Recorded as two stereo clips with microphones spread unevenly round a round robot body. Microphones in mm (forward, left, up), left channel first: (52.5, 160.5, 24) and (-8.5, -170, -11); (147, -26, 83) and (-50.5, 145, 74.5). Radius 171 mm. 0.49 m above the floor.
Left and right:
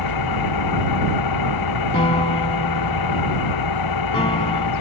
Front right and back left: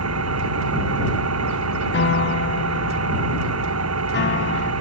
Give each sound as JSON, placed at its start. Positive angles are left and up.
{"t": 0.0, "sound": "an engine running", "azimuth_deg": 110}
{"t": 1.9, "sound": "a piano", "azimuth_deg": 5}